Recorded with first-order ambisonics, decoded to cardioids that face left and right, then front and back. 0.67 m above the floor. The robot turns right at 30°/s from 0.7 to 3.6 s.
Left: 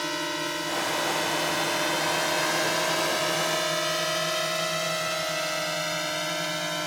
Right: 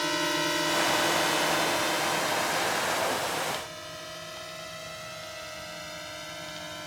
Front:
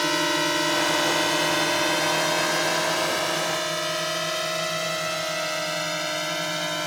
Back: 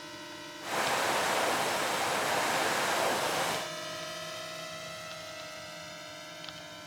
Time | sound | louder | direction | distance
0.0 | a drone | right 2 dB, front 21 dB | 5° right | ?